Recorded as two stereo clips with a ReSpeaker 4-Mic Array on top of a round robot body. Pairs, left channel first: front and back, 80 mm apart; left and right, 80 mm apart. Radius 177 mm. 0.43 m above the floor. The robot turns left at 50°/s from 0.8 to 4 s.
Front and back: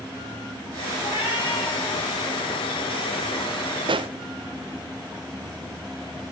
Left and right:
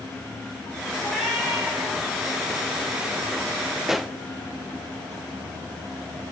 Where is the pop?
175° right, 0.5 m; by 4.1 s straight behind, 0.5 m.